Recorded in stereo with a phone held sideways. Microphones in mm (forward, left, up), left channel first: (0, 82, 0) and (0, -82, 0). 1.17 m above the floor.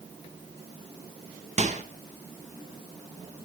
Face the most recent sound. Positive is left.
turn(degrees=-45)  # may be behind; listen again after turning